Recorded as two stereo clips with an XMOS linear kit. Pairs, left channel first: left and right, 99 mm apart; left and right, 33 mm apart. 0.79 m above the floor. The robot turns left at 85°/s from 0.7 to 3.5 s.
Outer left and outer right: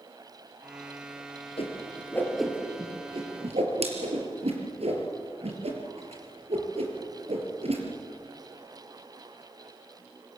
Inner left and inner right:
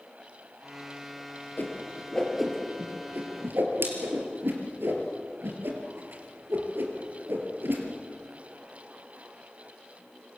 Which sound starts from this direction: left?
A whoosh, at 1.6 s.